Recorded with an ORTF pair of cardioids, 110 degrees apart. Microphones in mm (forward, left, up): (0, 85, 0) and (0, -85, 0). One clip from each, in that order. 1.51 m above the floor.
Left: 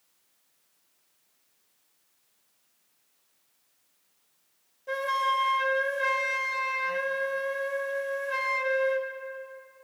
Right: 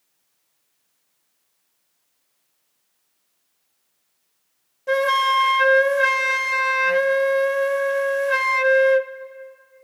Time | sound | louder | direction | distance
4.9 | a flute | right 9 dB | 50° right | 0.6 m